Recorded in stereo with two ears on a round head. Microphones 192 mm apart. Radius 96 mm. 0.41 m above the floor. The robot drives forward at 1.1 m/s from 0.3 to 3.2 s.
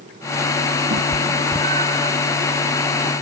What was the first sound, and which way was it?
A cat meowing, 50° right (ahead or behind).